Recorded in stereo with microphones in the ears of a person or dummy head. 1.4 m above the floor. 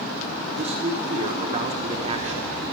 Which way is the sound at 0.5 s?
35° right (ahead or behind).